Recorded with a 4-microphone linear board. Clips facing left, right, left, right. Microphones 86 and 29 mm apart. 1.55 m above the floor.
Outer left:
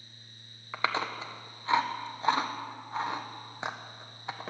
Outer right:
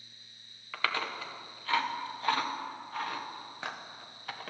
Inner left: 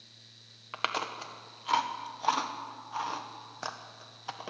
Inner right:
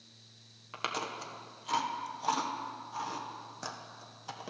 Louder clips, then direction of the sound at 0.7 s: Outer left 3 dB, inner left 3 dB; 20° left (ahead or behind).